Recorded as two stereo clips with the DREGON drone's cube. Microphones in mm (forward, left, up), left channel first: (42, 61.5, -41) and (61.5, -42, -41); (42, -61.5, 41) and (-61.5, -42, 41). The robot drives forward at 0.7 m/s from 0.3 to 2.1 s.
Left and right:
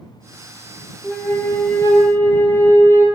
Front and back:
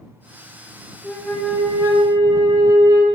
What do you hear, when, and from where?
1.0 s a flute: 40° left, 0.6 m; by 3.1 s 150° left, 0.7 m